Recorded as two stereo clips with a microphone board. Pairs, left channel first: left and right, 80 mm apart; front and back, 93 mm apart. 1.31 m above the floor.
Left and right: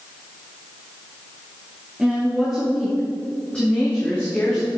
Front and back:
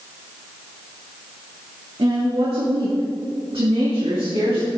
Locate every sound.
2.0 s a woman speaking: 175° right, 2 m; by 4.7 s 155° left, 2.5 m